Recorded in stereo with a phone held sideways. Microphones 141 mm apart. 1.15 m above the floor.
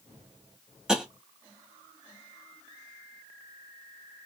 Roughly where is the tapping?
Centre.